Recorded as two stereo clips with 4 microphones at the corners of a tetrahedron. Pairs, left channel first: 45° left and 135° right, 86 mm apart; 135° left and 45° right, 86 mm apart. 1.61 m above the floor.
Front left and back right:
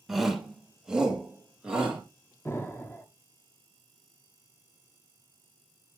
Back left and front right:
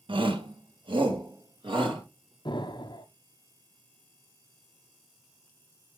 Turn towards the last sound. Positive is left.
turn(degrees=110)